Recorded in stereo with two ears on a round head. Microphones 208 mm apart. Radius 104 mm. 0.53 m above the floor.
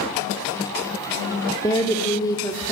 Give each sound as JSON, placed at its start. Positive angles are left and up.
{"t": 1.6, "sound": "a woman speaking", "side_deg": 15, "distance_m": 1.4}